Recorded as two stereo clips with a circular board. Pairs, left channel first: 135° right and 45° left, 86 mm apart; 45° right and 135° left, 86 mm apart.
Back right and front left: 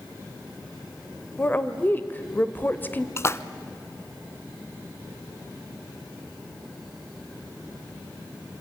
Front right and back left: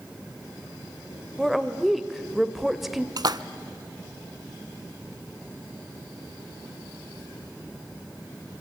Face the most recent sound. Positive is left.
turn(degrees=170)